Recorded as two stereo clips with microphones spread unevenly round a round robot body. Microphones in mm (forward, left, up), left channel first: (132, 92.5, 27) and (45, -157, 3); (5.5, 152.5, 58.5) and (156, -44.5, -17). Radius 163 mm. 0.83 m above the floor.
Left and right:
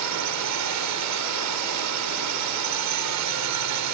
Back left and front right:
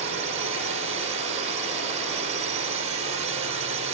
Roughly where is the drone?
Behind right.